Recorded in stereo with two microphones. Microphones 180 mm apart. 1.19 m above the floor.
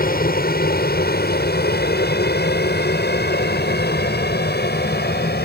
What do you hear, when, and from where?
0.0 s an aircraft: 60° left (ahead or behind); by 5.5 s 70° left (ahead or behind)